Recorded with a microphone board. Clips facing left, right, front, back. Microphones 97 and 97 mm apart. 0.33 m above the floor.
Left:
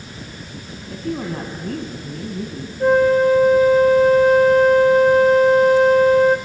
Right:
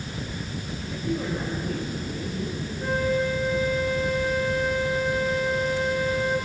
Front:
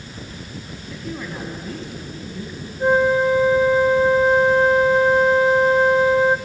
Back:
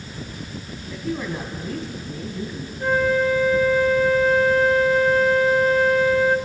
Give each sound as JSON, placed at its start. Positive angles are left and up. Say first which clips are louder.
{"t": 0.9, "sound": "a woman speaking", "louder": "left 3 dB, back 4 dB", "azimuth_deg": 95, "distance_m": 2.5}
{"t": 2.8, "sound": "a flute", "louder": "left 11 dB, front 3 dB", "azimuth_deg": 65, "distance_m": 0.8}